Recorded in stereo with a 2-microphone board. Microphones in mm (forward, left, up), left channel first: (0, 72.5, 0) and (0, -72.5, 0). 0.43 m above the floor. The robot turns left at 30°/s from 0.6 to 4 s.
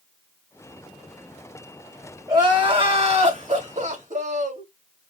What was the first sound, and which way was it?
Crying, 30° right.